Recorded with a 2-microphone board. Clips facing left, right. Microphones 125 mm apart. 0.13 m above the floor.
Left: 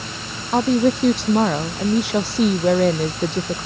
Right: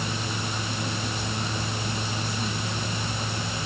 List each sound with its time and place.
0.5 s a woman speaking: 80° left